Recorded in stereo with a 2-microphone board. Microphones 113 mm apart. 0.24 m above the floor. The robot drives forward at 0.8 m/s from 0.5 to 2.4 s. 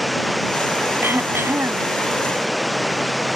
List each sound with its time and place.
0.0 s running water: centre (ahead or behind)
1.0 s throat clearing: 20° right (ahead or behind); by 1.9 s 25° right (ahead or behind)